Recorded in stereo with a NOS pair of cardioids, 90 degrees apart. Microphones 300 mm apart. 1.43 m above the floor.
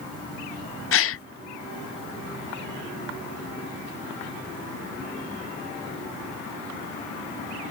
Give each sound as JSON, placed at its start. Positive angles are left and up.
{"t": 0.9, "sound": "a gasp", "azimuth_deg": 50}